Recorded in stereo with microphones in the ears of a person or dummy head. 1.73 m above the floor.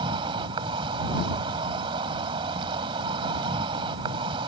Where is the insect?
30° right (ahead or behind).